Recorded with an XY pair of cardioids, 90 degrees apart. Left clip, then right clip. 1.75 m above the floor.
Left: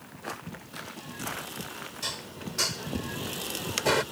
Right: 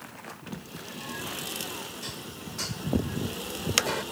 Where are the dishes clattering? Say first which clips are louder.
Left 3 dB; 55° left.